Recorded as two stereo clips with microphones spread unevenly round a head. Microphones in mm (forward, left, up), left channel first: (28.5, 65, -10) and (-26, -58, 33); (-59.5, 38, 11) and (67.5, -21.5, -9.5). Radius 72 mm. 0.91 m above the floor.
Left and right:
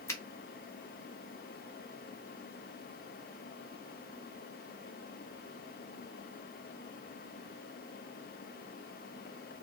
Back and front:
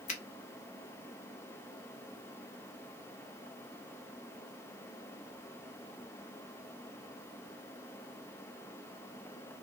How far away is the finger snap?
About 1.3 m.